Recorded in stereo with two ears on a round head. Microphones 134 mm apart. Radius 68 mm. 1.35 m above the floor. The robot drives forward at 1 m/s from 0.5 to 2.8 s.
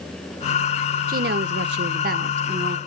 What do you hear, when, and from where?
1.1 s a woman speaking: 55° right (ahead or behind), 1.1 m; by 2.8 s 40° right (ahead or behind), 1.4 m